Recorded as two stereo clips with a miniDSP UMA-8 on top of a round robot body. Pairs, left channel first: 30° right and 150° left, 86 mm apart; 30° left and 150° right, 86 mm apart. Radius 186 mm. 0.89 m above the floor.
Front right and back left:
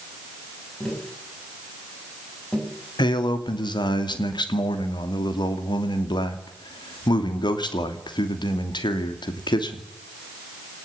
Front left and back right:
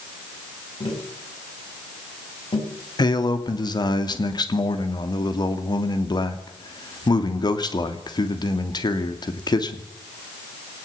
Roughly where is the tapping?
Ahead left.